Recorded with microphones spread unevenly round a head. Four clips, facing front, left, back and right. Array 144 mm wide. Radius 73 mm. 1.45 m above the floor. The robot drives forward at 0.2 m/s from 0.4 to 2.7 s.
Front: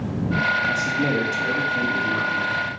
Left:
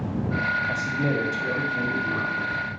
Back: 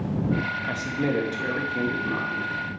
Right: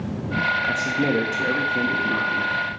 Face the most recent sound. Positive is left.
turn(degrees=-120)